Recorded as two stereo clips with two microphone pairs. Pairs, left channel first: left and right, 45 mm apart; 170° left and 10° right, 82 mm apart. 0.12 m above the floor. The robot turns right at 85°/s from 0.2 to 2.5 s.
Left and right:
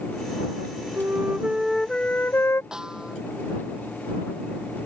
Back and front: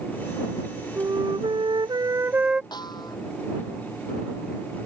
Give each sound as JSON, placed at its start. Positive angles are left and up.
{"t": 1.0, "sound": "a flute", "azimuth_deg": -60}
{"t": 2.7, "sound": "a snare drum", "azimuth_deg": -165}